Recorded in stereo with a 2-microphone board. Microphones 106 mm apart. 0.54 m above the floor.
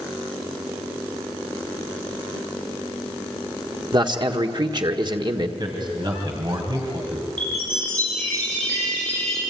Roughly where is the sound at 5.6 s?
Right.